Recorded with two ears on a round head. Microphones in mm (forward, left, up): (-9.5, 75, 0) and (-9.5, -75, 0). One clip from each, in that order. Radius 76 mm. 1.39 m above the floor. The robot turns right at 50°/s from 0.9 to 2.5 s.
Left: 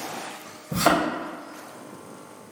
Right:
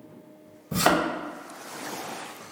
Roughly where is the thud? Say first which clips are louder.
Left 1 dB; right.